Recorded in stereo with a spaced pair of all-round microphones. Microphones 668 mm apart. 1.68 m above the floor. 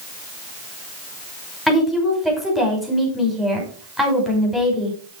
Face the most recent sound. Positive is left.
turn(degrees=0)  # may be behind; listen again after turning